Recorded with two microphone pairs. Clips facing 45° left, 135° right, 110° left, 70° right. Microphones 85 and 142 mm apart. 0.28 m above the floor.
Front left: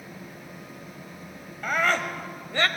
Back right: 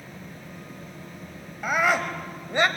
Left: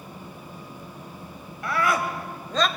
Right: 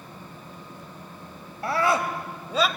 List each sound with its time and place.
1.6 s a scream: 60° right, 1.4 m; by 2.7 s 140° right, 1.2 m